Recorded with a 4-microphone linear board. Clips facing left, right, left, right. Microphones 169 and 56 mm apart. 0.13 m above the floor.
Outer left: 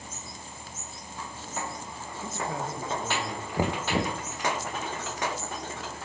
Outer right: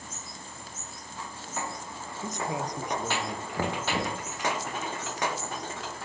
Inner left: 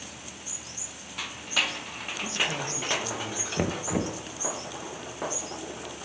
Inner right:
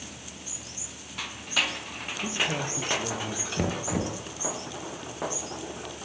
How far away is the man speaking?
About 3 m.